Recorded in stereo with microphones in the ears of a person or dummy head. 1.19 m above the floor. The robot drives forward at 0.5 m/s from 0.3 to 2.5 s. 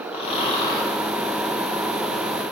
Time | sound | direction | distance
0.1 | snoring | 30° left (ahead or behind) | 1.0 m